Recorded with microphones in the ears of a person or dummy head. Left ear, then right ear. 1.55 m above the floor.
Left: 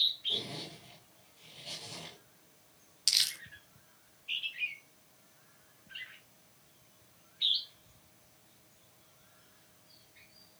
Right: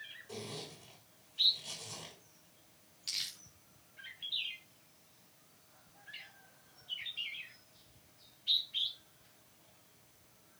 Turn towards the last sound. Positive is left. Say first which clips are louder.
# left 10 dB
turn(degrees=35)  # may be behind; listen again after turning